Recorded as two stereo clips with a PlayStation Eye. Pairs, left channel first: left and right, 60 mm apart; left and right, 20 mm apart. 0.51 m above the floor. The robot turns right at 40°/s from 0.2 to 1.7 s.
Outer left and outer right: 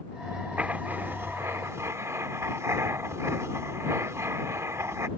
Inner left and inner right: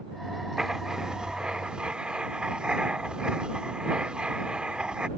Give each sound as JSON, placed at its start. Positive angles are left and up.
{"t": 0.6, "sound": "writing", "azimuth_deg": -150}